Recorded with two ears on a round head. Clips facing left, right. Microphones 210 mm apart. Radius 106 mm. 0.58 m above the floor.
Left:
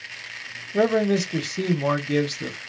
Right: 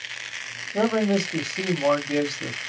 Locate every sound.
0.7 s a man speaking: 20° left (ahead or behind), 1.4 m